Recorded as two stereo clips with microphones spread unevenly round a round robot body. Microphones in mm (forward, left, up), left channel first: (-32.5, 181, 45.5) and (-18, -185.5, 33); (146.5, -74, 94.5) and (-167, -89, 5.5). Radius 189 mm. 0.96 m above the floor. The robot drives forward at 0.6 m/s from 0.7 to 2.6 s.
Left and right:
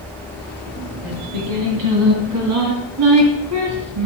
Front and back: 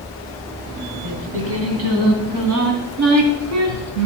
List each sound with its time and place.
1.0 s singing: 120° right, 2.5 m; by 4.1 s 135° right, 3 m